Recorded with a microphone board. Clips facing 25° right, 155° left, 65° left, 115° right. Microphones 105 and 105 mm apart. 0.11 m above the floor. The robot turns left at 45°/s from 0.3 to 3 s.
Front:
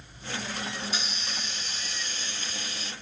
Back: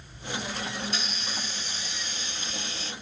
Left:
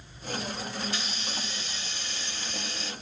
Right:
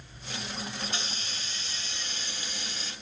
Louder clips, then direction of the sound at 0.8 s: Back 1 dB, left 2 dB; 95° right.